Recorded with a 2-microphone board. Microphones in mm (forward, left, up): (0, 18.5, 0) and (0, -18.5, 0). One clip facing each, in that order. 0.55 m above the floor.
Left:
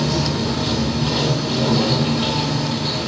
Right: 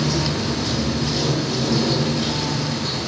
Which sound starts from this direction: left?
Running water, at 0.0 s.